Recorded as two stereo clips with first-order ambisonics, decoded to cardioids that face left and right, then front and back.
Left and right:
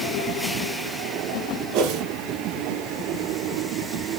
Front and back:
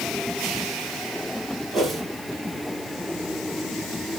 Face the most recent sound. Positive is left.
turn(degrees=-110)